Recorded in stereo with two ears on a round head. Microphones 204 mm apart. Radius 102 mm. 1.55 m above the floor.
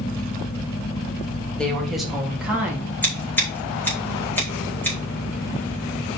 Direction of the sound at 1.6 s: 5° left (ahead or behind).